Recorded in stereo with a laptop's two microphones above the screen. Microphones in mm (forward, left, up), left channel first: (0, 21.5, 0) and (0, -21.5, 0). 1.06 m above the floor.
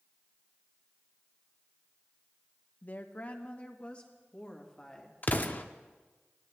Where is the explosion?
45° left (ahead or behind), 0.7 m.